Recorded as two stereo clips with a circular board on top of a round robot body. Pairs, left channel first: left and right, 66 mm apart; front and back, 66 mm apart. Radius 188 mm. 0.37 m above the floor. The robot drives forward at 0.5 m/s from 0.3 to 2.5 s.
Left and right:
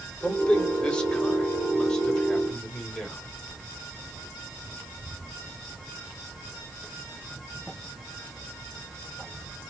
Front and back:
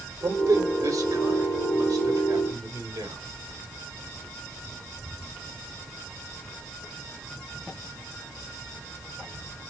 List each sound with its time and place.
0.2 s a man speaking: 160° left, 1.7 m; by 3.2 s 170° left, 2.5 m